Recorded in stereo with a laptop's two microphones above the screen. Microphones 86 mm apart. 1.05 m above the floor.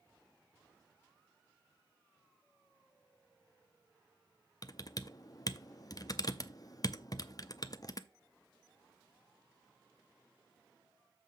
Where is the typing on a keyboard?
45° left (ahead or behind), 0.5 m.